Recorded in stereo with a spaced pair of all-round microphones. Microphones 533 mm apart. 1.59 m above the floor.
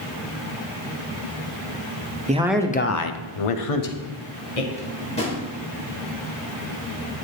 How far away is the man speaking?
About 0.7 m.